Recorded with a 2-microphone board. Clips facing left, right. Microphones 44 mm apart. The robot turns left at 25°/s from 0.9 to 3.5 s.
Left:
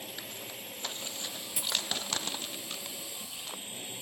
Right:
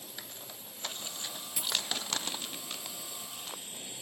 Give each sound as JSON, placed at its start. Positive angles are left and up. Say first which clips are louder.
{"t": 0.0, "sound": "a drone", "louder": "left 5 dB", "azimuth_deg": 95}
{"t": 1.6, "sound": "a dropped coin", "louder": "even", "side_deg": 10}